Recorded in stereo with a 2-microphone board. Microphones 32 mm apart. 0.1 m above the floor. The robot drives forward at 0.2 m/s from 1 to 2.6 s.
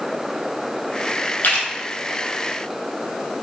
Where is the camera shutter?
60° left (ahead or behind), 1.8 m; by 1.7 s 65° left (ahead or behind), 1.8 m.